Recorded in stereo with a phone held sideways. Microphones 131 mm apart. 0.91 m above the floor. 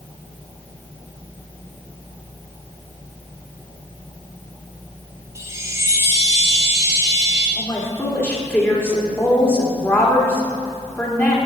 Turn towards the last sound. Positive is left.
turn(degrees=15)  # may be behind; listen again after turning